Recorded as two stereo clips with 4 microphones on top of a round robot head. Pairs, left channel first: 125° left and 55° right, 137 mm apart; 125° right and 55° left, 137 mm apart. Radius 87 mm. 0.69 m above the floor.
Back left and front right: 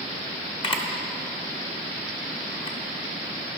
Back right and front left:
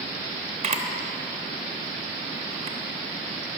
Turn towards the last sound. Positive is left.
turn(degrees=85)